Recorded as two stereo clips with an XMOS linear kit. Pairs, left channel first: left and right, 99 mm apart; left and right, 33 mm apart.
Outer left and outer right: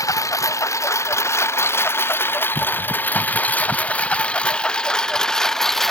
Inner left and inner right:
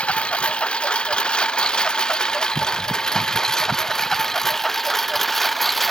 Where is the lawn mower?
35° left (ahead or behind); by 5.9 s 5° left (ahead or behind).